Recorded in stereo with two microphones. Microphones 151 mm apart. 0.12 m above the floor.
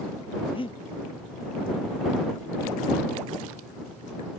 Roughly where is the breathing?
Left.